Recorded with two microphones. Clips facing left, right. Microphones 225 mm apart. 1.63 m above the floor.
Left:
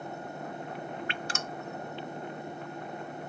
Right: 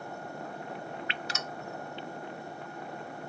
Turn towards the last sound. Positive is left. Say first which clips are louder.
# left 2 dB
turn(degrees=50)  # may be behind; listen again after turning